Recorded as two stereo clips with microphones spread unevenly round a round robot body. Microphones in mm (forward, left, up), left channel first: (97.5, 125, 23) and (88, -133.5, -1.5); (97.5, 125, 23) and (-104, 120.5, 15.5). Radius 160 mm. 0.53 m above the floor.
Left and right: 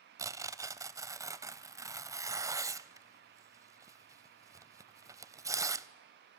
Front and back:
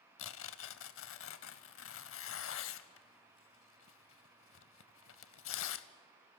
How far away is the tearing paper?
About 0.5 m.